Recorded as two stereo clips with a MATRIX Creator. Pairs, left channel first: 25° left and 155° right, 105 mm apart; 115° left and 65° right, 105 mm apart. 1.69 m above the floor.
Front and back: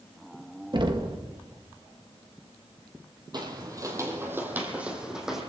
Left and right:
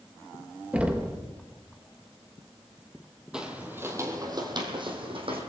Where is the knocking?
140° right, 1.2 m.